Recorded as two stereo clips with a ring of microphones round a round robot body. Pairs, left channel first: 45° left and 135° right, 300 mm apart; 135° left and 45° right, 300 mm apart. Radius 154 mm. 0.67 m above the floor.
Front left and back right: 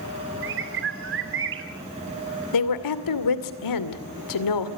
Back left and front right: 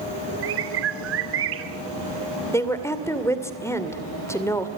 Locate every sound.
0.4 s a bird: 90° right, 2.5 m
2.5 s a woman speaking: 55° left, 2.5 m